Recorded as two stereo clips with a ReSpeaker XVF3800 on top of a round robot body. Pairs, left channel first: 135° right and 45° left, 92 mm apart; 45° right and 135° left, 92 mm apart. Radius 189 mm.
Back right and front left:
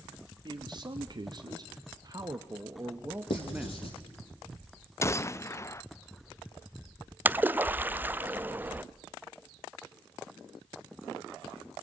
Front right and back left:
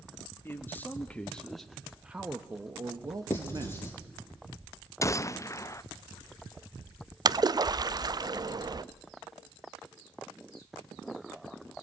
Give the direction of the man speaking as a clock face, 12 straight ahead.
11 o'clock.